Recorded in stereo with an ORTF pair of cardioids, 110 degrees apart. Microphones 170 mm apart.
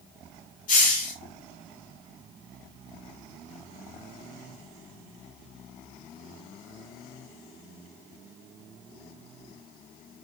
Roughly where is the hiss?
Ahead left.